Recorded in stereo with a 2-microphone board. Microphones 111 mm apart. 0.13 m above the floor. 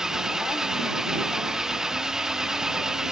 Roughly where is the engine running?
Centre.